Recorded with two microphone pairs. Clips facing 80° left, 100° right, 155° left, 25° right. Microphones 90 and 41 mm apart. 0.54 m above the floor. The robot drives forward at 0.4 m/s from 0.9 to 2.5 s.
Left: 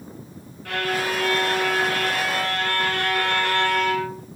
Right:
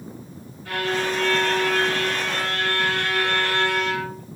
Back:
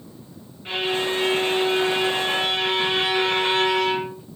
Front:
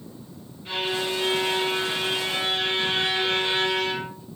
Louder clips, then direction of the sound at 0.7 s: Even, back 3 dB; 100° left.